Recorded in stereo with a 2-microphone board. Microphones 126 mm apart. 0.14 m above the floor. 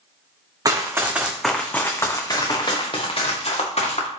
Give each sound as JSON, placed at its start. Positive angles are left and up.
{"t": 0.7, "sound": "running footsteps", "side_deg": -30, "distance_m": 0.8}